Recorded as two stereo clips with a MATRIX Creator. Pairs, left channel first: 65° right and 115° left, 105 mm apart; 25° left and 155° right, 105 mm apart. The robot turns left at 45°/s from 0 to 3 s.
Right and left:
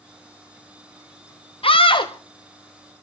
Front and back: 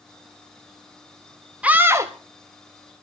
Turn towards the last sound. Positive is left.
turn(degrees=-145)